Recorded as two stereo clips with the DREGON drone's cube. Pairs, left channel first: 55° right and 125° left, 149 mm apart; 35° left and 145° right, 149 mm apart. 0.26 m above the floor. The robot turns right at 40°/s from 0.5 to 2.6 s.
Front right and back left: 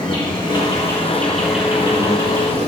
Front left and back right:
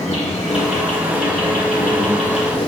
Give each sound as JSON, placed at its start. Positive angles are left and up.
{"t": 0.0, "sound": "an insect", "azimuth_deg": -5, "distance_m": 3.0}